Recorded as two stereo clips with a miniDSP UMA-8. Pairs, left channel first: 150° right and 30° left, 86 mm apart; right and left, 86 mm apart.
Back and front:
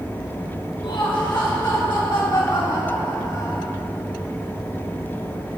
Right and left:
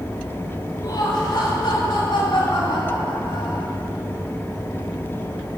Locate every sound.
0.8 s laughter: 130° right, 3 m; by 3.7 s 115° right, 6 m